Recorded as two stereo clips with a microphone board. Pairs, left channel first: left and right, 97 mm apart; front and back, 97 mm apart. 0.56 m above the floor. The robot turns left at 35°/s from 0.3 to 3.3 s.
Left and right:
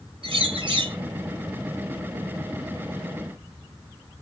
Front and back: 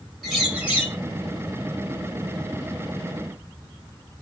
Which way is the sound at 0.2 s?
90° right.